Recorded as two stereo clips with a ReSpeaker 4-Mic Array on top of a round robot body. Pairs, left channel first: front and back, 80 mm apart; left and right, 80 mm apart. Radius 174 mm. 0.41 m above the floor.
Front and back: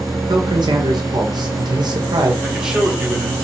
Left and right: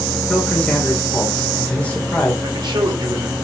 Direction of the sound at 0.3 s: 160° left.